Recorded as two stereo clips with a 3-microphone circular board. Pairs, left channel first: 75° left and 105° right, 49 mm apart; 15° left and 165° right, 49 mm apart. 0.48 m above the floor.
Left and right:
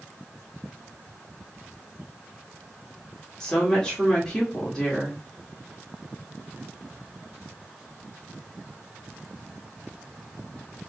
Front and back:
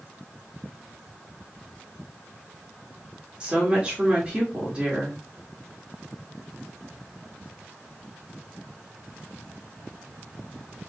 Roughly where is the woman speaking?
Behind left.